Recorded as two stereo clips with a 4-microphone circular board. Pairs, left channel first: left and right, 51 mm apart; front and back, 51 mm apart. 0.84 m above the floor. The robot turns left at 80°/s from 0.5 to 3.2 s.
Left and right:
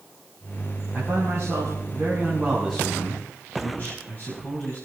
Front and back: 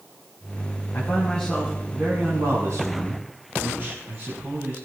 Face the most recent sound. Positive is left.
turn(degrees=145)